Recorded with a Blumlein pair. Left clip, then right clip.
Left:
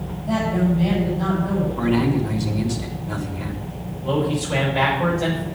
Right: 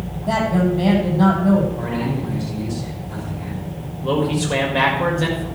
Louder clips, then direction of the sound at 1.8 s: Left 4 dB; 55° left.